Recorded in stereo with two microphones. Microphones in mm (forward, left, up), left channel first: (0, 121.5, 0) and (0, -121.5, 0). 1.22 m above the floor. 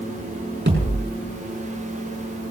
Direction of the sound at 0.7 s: 50° right (ahead or behind).